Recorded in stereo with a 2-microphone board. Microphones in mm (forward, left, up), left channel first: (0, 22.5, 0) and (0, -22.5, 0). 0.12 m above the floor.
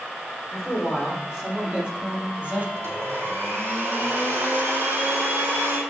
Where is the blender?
75° right (ahead or behind), 4.5 m.